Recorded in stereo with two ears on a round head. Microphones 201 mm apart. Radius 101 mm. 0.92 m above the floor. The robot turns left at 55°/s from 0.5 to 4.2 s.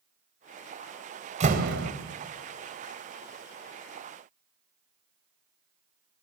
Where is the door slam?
30° right (ahead or behind), 3 m; by 1.9 s 60° right (ahead or behind), 3 m.